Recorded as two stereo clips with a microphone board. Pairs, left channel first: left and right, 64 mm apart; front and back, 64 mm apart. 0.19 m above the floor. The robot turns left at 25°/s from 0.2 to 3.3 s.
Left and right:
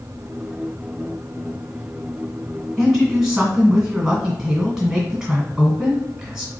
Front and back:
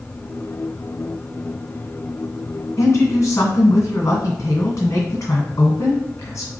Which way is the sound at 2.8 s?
5° left.